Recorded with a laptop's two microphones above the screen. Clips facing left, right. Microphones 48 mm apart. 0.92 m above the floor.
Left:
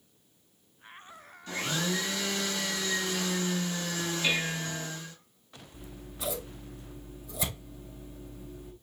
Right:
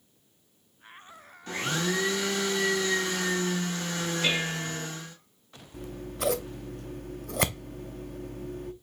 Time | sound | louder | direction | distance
1.5 | a blender | right 2 dB | 45° right (ahead or behind) | 3.5 m
4.2 | dishes clattering | right 1 dB | 70° right (ahead or behind) | 3.5 m
5.7 | scissors | right 9 dB | 60° right (ahead or behind) | 0.6 m